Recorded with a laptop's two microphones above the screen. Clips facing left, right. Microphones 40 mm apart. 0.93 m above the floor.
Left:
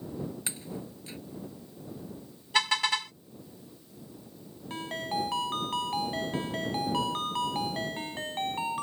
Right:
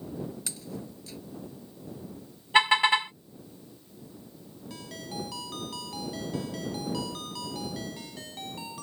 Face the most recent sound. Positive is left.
turn(degrees=40)  # may be behind; listen again after turning